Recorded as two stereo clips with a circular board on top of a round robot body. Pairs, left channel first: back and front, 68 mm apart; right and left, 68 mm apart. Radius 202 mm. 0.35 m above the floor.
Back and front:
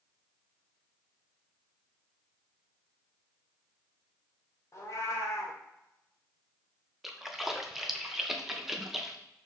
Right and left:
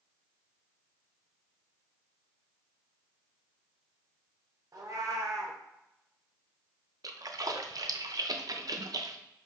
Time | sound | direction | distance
4.7 | a cat meowing | 130° left | 0.5 m
7.0 | a splash | 85° left | 0.6 m